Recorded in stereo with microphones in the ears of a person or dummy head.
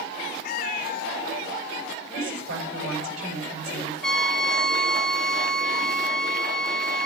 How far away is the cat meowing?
About 0.8 m.